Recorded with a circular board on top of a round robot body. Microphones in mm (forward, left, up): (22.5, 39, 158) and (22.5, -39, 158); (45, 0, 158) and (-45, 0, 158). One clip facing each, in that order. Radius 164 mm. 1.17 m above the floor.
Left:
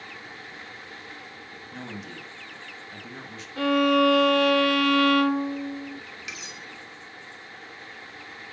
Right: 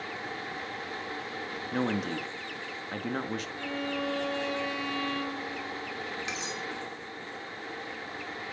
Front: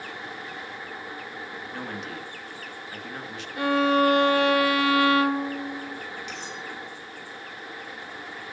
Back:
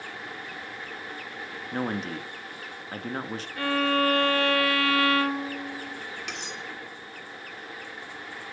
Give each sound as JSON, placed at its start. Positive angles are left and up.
{"t": 1.7, "sound": "a man speaking", "azimuth_deg": -130, "distance_m": 1.7}
{"t": 3.6, "sound": "a violin", "azimuth_deg": 70, "distance_m": 0.7}
{"t": 6.3, "sound": "cutlery clinking", "azimuth_deg": -150, "distance_m": 2.0}